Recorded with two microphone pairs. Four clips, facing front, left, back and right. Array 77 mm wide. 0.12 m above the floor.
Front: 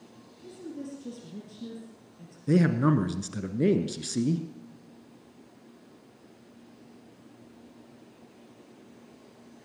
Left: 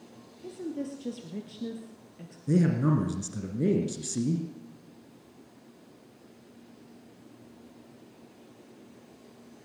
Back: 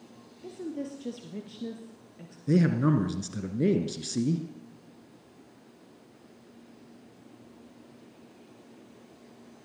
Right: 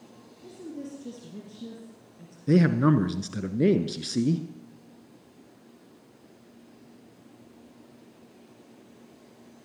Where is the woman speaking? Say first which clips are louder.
Left 4 dB, back 4 dB; 150° left, 2.5 m.